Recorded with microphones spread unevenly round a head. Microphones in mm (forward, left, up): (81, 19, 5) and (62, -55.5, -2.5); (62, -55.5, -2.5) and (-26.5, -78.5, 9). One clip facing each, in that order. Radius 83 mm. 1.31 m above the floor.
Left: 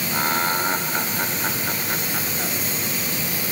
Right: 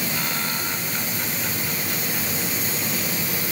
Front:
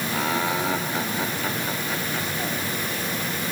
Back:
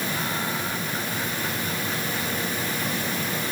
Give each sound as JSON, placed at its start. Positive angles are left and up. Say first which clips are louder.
{"t": 0.1, "sound": "laughter", "louder": "left 6 dB, front 4 dB", "azimuth_deg": 20}